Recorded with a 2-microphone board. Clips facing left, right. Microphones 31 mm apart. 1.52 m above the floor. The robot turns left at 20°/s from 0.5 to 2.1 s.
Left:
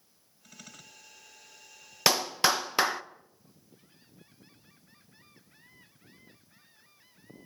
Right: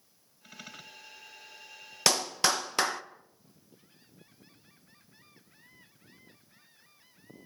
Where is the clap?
15° left (ahead or behind), 0.8 m.